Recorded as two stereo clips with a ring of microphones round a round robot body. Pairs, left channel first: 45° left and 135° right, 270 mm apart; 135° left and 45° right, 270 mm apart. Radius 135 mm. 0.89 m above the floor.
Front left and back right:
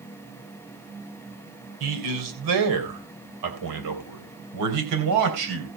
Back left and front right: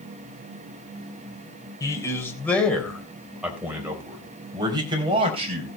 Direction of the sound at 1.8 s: 145° right.